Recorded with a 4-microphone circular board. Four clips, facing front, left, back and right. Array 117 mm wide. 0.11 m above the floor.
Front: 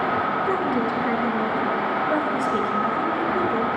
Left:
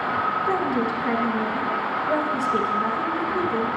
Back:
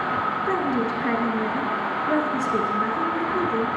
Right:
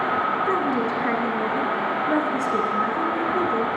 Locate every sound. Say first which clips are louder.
0.5 s a woman speaking: right 1 dB, front 1 dB; 125° right, 1.2 m